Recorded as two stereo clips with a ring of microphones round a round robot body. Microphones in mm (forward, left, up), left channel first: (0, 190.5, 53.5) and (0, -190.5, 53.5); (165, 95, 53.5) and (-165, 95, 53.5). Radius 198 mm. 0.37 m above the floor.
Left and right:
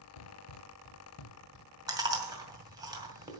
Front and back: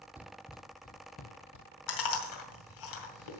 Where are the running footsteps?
95° left, 0.9 m; by 1.7 s 30° left, 1.1 m.